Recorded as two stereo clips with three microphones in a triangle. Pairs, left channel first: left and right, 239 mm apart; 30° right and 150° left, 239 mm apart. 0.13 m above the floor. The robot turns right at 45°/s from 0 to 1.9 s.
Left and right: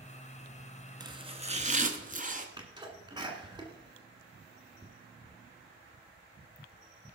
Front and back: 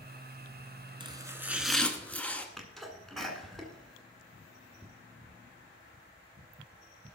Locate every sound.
1.0 s chopping: 150° right, 1.0 m; by 2.5 s 110° right, 1.0 m
2.6 s a sneeze: 115° right, 1.7 m